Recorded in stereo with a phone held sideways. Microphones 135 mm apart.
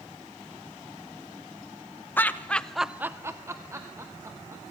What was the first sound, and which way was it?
Laughter, 15° left (ahead or behind).